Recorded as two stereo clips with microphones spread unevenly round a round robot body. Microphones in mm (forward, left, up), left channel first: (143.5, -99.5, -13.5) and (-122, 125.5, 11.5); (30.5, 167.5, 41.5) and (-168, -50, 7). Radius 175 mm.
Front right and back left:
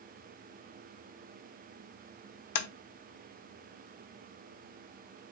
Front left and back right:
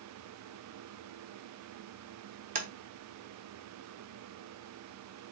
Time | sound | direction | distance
2.5 | tapping | 70° right | 0.8 m